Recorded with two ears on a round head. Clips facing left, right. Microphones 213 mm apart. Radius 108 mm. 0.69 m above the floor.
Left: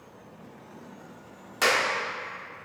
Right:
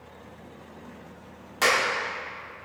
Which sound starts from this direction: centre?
A clap, at 1.6 s.